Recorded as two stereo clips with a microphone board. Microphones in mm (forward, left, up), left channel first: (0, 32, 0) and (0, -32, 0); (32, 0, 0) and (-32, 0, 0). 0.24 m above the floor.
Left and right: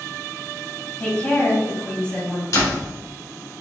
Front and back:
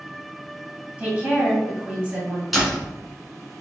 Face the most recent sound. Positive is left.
turn(degrees=90)